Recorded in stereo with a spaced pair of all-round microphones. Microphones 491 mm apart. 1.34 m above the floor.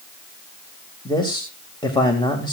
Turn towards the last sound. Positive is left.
turn(degrees=10)  # may be behind; listen again after turning